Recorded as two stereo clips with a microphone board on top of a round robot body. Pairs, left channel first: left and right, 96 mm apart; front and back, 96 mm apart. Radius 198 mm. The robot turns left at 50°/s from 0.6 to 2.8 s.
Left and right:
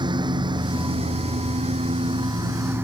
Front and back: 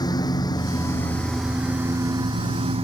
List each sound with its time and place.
0.0 s a lawn mower: 50° right; by 2.9 s 160° right